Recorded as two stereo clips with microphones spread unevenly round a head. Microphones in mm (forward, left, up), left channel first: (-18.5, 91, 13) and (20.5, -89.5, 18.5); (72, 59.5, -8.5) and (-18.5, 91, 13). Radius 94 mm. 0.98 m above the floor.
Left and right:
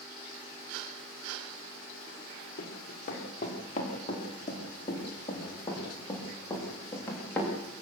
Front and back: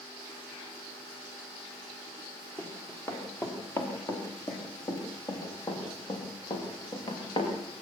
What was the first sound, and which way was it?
Running footsteps, 55° left.